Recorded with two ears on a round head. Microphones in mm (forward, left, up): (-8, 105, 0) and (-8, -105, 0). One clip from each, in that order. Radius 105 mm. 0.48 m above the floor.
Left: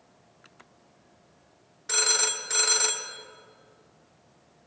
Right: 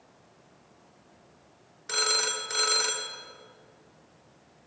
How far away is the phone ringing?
About 0.6 m.